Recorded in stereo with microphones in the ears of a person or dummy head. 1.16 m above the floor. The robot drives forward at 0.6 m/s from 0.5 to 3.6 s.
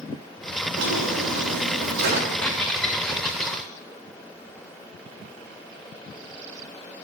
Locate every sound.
0.8 s a drawer: 75° right (ahead or behind), 1.4 m; by 2.5 s 60° right (ahead or behind), 1.5 m
2.4 s a squeak: 5° left (ahead or behind), 0.8 m; by 3.6 s centre (ahead or behind), 1.5 m